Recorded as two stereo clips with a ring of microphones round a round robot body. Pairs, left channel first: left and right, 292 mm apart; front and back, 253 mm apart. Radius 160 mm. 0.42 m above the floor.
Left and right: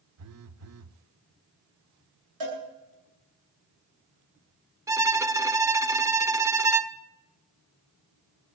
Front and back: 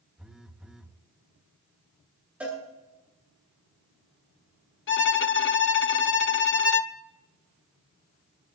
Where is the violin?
15° right, 0.9 m.